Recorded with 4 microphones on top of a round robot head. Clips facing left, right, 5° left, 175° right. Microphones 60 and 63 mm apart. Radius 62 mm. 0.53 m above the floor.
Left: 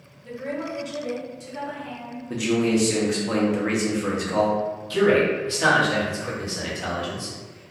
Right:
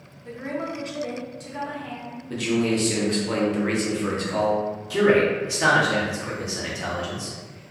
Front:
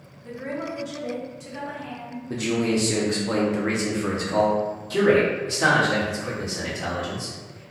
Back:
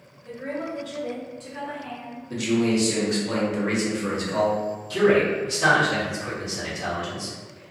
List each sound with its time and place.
0.2 s a woman speaking: 40° right, 0.8 m; by 2.2 s 85° right, 1.5 m
2.3 s a man speaking: 20° left, 0.7 m
4.9 s a man speaking: 20° right, 1.3 m